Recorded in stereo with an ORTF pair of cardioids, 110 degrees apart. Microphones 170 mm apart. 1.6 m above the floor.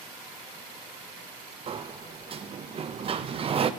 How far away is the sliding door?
About 0.6 m.